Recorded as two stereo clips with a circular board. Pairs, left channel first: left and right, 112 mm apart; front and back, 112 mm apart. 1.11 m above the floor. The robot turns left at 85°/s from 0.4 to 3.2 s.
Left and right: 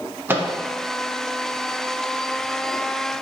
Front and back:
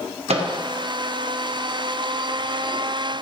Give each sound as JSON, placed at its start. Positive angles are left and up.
{"t": 0.3, "sound": "a microwave", "azimuth_deg": -160, "distance_m": 0.7}